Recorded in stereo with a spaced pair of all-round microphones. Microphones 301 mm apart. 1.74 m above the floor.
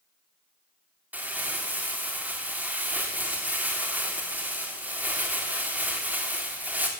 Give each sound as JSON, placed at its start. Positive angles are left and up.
{"t": 1.1, "sound": "crumpling", "side_deg": -5, "distance_m": 3.0}